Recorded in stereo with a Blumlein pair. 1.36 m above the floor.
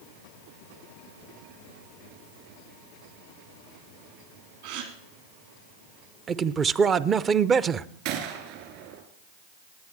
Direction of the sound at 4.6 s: 55° right.